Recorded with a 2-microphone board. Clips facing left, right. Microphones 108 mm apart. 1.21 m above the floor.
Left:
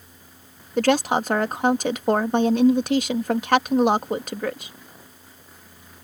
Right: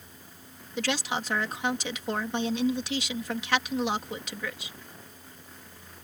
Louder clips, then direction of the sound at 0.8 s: Left 11 dB; 50° left (ahead or behind).